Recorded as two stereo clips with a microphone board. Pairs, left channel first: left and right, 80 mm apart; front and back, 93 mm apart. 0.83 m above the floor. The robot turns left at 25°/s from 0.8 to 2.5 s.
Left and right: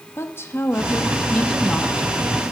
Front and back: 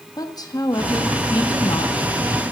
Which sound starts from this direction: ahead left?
A woman speaking, at 0.2 s.